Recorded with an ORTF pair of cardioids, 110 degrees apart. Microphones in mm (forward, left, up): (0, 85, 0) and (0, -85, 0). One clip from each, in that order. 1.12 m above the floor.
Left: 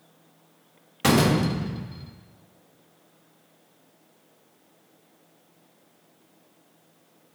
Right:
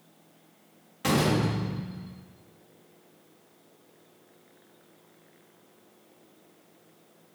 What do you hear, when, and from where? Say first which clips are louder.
1.0 s a door slam: left 4 dB; 45° left, 1.1 m